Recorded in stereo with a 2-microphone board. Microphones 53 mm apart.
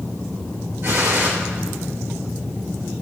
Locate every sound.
0.8 s a gunshot: 60° right (ahead or behind), 2.5 m